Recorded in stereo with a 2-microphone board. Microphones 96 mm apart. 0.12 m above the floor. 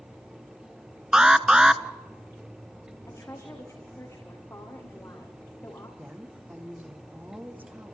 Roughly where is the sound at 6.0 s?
Centre.